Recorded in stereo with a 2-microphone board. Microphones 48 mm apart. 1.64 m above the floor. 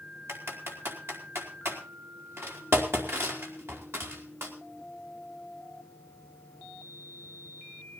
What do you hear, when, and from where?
0.3 s typing on a keyboard: 65° right (ahead or behind), 4 m